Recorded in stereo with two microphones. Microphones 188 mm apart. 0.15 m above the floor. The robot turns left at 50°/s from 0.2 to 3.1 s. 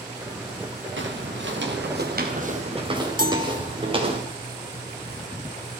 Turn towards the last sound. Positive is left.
turn(degrees=-50)  # may be behind; listen again after turning